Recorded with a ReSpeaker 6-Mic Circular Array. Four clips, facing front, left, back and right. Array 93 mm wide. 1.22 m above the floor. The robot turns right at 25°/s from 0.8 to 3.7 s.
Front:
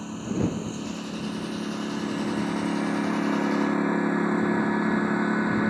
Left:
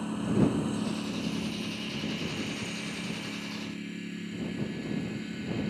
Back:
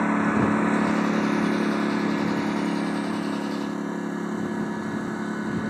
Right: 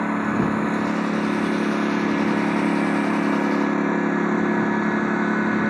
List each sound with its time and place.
0.0 s a lawn mower: 140° right; by 5.7 s 70° right